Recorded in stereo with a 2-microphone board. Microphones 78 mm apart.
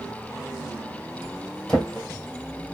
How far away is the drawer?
About 1.3 m.